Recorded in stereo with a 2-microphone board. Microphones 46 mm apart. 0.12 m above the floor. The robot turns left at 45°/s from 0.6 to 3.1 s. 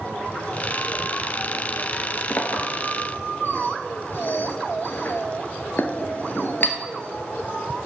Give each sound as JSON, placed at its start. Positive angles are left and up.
{"t": 2.3, "sound": "a clink", "side_deg": 45, "distance_m": 1.0}